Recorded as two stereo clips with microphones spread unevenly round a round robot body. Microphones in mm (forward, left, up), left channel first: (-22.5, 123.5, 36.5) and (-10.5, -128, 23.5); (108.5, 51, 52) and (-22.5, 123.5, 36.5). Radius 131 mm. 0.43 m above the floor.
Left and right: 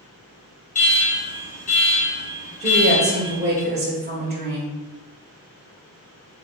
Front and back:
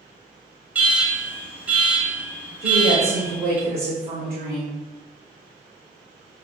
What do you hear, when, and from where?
0.8 s an alarm: 95° left, 1.9 m
2.6 s a woman speaking: 145° right, 1.8 m